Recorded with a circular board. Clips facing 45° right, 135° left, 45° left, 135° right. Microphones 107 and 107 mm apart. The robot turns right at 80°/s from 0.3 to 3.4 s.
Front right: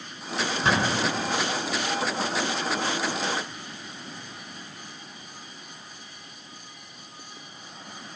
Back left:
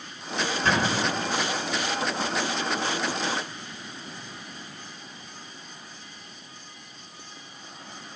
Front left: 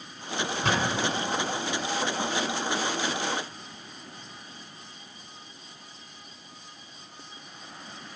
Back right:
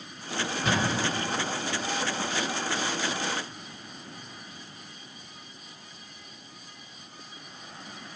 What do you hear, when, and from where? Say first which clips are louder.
0.6 s a thud: front right 1 dB, even; 30° left, 4 m; by 1.3 s 80° left, 4 m